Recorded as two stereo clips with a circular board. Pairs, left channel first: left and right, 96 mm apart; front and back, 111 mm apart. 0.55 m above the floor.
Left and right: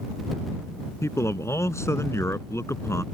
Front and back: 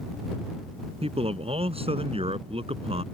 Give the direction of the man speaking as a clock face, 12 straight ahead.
7 o'clock.